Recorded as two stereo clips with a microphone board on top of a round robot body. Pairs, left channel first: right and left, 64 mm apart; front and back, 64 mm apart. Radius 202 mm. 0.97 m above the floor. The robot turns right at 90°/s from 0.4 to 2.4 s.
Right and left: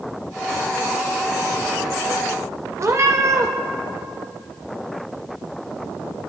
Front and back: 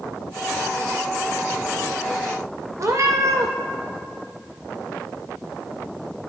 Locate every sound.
2.8 s a cat meowing: 135° left, 0.7 m